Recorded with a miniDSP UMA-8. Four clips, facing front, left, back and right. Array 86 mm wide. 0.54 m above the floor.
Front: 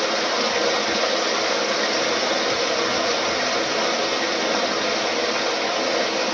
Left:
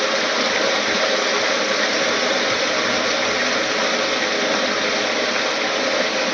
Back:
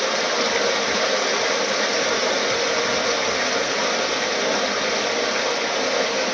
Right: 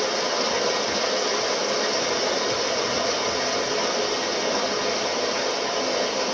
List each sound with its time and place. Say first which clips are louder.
0.0 s running water: left 4 dB, even; 100° left, 1.1 m